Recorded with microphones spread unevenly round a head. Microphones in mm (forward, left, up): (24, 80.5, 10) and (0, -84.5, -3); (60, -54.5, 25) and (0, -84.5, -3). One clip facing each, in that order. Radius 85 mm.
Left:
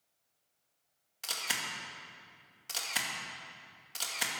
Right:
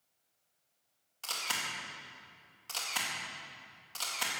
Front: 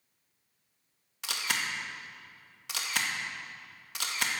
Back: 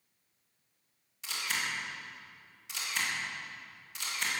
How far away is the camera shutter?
About 2.0 m.